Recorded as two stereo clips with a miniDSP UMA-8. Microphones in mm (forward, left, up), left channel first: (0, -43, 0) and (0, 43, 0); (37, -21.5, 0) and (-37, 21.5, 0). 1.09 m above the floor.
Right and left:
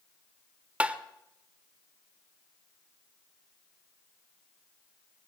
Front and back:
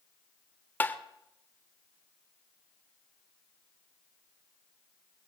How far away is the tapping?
About 0.8 m.